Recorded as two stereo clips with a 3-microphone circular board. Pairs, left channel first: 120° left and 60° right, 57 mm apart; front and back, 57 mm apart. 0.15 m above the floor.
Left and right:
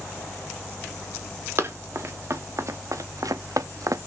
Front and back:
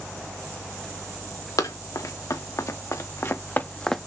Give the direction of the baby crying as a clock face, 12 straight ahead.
No baby crying in this recording.